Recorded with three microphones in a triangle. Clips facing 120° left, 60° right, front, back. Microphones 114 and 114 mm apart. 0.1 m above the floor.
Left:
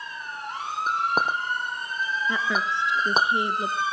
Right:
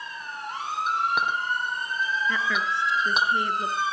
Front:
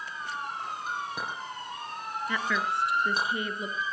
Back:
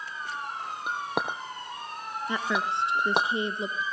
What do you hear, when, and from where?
0.9 s a clink: 170° left, 2 m
2.3 s a woman speaking: 160° left, 1.5 m